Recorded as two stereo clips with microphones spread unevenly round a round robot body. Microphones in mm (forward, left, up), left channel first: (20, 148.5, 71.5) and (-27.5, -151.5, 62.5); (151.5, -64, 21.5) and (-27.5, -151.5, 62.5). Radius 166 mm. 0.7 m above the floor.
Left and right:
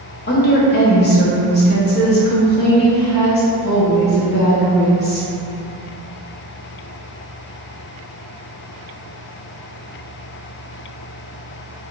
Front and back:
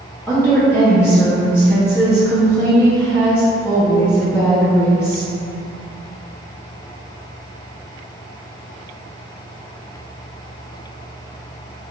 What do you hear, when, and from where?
0.3 s a woman speaking: 65° left, 0.7 m